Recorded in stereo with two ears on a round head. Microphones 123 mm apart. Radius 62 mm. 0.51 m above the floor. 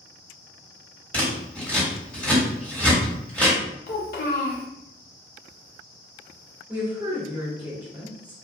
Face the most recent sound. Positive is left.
turn(degrees=-10)  # may be behind; listen again after turning